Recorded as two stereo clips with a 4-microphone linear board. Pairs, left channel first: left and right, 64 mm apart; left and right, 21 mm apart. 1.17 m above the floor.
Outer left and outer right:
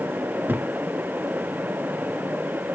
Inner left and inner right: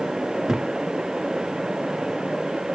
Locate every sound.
0.5 s a thud: 30° right (ahead or behind), 0.7 m